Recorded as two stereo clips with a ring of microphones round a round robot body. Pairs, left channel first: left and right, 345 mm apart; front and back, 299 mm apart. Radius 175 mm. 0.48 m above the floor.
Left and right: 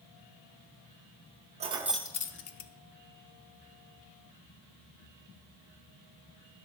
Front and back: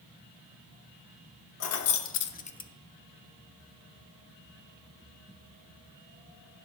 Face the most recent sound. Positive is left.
turn(degrees=80)